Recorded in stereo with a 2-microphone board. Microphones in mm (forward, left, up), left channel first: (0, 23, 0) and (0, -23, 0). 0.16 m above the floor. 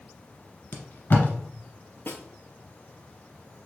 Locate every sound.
0.7 s tape being pulled: 50° left (ahead or behind), 1.2 m
2.1 s a snare drum: 45° left (ahead or behind), 0.7 m